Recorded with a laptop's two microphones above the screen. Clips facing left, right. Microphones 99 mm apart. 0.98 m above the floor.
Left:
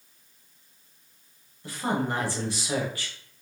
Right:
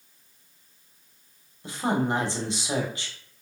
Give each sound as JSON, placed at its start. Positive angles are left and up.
{"t": 1.6, "sound": "a woman speaking", "side_deg": -20, "distance_m": 1.0}